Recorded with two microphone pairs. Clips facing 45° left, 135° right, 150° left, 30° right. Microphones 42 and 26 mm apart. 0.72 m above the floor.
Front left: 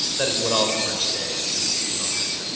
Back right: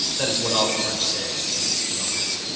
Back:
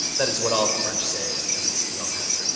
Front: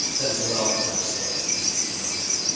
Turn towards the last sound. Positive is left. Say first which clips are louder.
# front left 1 dB, back 4 dB
turn(degrees=125)